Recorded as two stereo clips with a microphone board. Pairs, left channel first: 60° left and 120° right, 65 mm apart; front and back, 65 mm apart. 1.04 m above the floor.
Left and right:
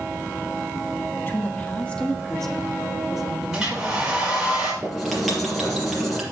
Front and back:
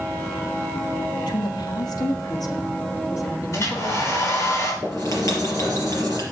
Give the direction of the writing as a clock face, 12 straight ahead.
1 o'clock.